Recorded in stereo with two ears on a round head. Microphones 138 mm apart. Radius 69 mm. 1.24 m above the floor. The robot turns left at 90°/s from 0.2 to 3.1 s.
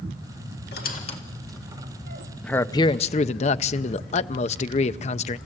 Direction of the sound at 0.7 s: 75° left (ahead or behind).